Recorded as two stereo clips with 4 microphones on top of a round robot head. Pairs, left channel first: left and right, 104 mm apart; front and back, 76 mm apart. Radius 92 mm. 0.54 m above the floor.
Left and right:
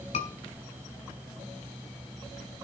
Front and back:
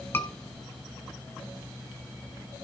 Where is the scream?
60° left, 7 m.